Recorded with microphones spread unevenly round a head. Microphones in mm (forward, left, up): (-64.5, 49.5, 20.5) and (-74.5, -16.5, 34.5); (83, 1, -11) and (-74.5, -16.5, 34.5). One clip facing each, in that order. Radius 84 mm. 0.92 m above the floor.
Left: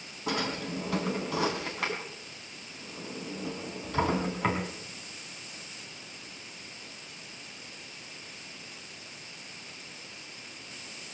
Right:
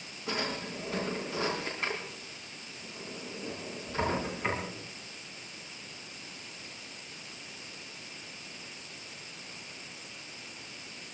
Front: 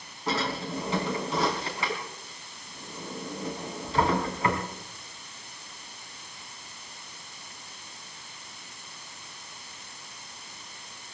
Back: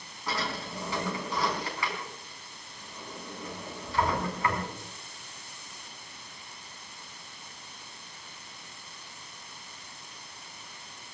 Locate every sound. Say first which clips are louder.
0.3 s a drawer: left 3 dB, front 5 dB; 75° left, 3.5 m